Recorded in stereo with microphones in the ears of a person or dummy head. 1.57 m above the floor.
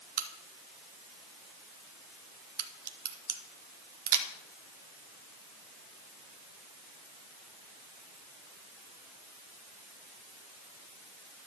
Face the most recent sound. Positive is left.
turn(degrees=-55)  # may be behind; listen again after turning